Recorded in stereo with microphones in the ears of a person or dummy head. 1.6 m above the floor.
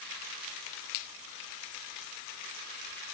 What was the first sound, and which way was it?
Only background noise.